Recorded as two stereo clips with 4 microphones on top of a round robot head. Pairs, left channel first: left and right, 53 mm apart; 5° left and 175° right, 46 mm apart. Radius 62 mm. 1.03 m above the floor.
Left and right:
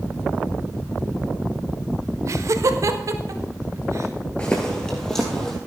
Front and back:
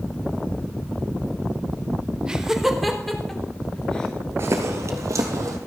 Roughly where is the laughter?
Right.